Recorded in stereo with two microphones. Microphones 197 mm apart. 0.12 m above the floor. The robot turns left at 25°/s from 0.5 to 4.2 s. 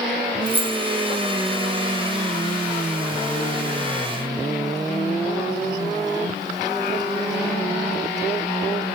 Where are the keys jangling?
65° right (ahead or behind), 2 m; by 0.8 s 60° right (ahead or behind), 2 m.